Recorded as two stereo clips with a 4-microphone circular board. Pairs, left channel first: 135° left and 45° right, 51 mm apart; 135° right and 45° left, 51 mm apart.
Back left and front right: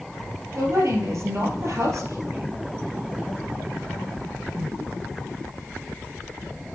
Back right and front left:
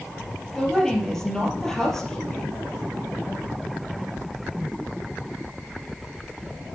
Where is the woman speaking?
55° right, 2.5 m.